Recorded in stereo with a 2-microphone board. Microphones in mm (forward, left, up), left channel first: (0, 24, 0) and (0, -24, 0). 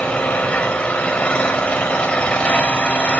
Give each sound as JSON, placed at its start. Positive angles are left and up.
{"t": 0.0, "sound": "an engine running", "side_deg": 25, "distance_m": 4.5}